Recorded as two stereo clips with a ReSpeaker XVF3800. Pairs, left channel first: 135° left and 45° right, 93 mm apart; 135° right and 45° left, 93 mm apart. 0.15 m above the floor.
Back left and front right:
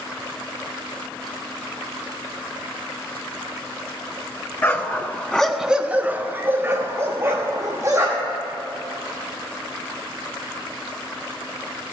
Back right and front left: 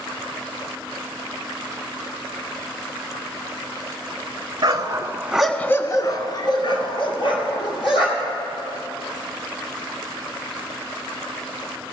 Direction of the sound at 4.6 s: 75° left.